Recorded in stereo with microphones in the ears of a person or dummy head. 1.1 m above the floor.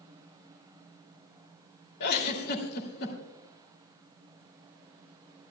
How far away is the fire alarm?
No fire alarm in this recording.